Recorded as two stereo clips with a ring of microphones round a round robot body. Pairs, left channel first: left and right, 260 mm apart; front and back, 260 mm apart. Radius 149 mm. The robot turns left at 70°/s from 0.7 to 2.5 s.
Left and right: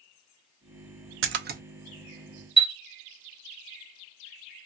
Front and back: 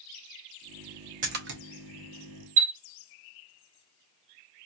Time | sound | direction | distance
1.2 | a splash | 120° right | 0.6 m
2.6 | a chime | 175° right | 1.5 m